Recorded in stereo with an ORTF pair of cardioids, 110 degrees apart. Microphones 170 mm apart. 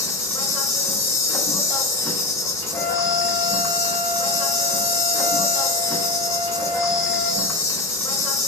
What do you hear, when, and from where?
0.0 s an insect: 20° left, 1.2 m
2.7 s a flute: 25° left, 1.4 m